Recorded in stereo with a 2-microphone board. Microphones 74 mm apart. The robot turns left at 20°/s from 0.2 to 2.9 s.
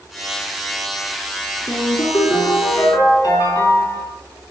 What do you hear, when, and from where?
1.7 s a ringtone: 55° left (ahead or behind), 4 m; by 4.1 s 80° left, 4 m